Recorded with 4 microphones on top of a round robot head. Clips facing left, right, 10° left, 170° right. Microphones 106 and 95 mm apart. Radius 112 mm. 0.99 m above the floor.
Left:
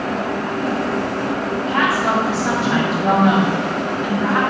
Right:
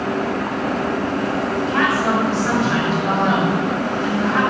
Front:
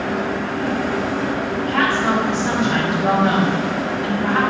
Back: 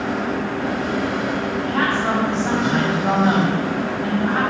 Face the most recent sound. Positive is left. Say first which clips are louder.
# left 1 dB, front 2 dB
turn(degrees=5)